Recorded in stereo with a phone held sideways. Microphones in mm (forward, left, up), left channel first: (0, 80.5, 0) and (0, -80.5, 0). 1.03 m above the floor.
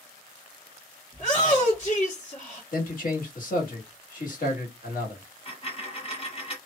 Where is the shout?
40° left (ahead or behind), 1.0 m.